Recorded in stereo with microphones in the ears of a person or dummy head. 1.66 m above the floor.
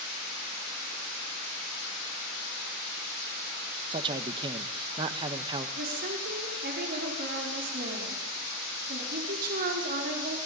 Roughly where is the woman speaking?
Right.